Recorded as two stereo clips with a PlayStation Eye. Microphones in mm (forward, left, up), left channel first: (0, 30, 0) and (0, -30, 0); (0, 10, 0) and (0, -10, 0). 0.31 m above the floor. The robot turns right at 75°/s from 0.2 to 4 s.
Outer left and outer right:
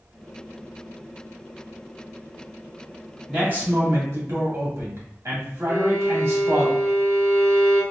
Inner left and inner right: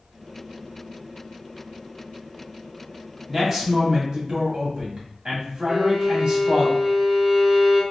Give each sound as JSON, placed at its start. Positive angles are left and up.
{"t": 3.3, "sound": "a man speaking", "azimuth_deg": -160, "distance_m": 1.5}
{"t": 5.7, "sound": "a violin", "side_deg": -60, "distance_m": 1.7}